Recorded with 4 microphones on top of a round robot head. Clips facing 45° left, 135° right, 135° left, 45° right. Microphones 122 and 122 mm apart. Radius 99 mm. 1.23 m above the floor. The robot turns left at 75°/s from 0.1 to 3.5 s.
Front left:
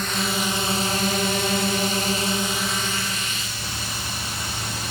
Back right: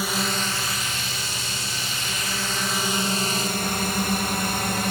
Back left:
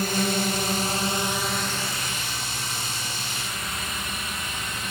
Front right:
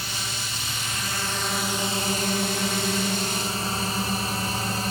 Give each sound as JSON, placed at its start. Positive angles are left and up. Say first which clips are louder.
{"t": 0.0, "sound": "a drone", "louder": "front left 1 dB, back left 11 dB", "azimuth_deg": 145}